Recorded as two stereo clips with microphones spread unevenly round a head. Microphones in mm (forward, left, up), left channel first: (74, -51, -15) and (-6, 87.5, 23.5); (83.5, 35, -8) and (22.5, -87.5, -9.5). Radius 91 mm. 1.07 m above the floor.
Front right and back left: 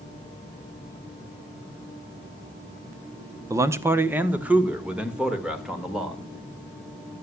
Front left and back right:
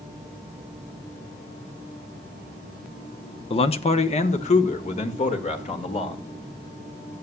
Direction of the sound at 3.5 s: 40° left.